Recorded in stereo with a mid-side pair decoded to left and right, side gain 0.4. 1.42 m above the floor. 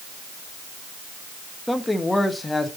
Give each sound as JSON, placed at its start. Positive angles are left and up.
{"t": 1.7, "sound": "a man speaking", "azimuth_deg": 10, "distance_m": 1.4}